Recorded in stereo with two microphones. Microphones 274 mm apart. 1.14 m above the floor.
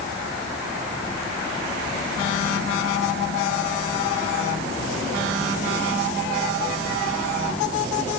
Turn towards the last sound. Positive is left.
No sound to turn to.